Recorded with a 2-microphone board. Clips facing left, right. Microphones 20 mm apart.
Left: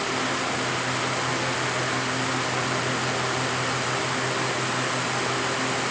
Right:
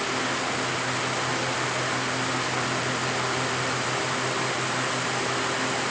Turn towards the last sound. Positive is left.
No sound to turn to.